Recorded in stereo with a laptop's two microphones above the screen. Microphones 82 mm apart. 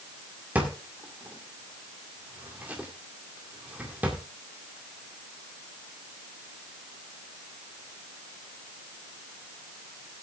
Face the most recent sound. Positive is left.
turn(degrees=-20)  # may be behind; listen again after turning